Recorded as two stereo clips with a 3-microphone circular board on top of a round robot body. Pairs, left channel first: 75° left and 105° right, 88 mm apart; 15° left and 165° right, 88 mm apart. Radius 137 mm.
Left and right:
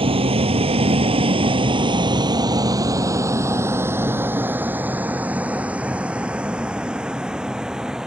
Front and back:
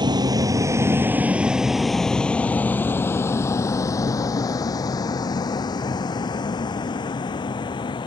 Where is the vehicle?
125° right; by 8.1 s 20° right.